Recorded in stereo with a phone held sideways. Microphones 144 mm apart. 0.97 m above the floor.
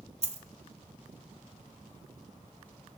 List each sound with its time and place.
0.2 s a dropped coin: 50° right (ahead or behind), 1.3 m